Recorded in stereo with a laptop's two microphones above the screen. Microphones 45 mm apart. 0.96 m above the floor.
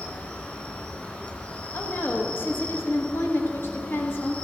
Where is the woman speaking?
60° left (ahead or behind), 1.4 m.